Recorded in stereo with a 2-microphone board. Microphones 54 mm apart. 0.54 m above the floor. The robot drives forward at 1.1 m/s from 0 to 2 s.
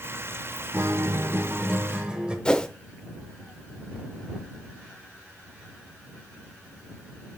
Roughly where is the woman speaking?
No woman speaking in this recording.